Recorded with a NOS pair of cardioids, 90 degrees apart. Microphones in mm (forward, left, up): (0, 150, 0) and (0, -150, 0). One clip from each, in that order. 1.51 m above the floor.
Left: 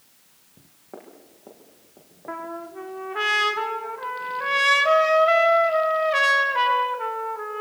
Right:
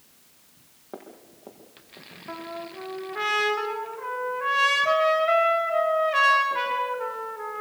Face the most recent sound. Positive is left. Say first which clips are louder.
# left 3 dB
turn(degrees=30)